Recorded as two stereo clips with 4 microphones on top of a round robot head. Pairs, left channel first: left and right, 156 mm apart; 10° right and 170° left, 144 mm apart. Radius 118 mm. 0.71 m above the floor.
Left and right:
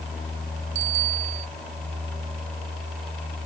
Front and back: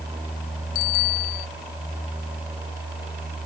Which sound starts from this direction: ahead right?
A bicycle bell, at 0.8 s.